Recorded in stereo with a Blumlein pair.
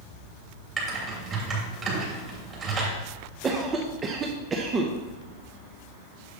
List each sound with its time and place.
0.8 s typing on a keyboard: 25° right, 2.5 m
3.4 s a cough: 20° right, 0.7 m